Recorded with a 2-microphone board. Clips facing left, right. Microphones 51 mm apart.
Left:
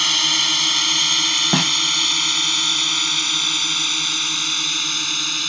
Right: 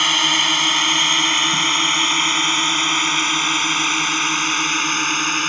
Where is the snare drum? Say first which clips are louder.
Right 1 dB; 80° left.